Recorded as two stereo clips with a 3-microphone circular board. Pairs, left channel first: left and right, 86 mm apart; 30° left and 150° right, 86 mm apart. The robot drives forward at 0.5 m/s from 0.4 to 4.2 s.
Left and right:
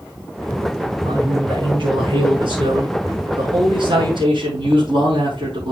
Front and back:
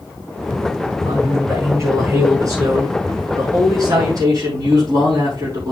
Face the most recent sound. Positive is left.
turn(degrees=-105)